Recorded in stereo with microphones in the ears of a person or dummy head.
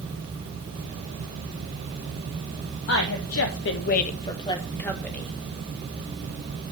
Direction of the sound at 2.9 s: 60° left (ahead or behind).